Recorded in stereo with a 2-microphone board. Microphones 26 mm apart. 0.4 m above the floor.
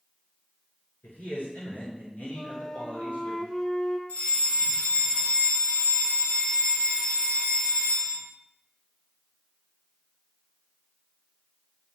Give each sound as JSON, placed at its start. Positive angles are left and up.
{"t": 1.0, "sound": "a man speaking", "side_deg": 80, "distance_m": 6.5}
{"t": 2.3, "sound": "a flute", "side_deg": 30, "distance_m": 2.0}
{"t": 4.1, "sound": "a fire alarm", "side_deg": 65, "distance_m": 6.5}